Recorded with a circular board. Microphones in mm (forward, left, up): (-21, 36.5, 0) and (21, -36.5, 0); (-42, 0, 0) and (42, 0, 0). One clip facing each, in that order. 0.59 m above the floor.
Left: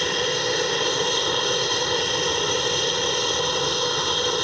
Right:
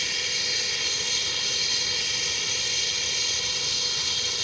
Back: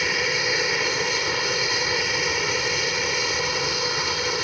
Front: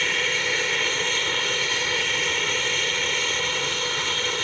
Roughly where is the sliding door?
I don't hear a sliding door.